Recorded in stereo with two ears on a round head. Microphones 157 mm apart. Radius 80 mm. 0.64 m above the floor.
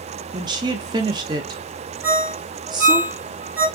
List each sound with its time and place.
0.3 s a woman speaking: 25° right (ahead or behind), 0.6 m
2.0 s a ringtone: 10° right (ahead or behind), 1.1 m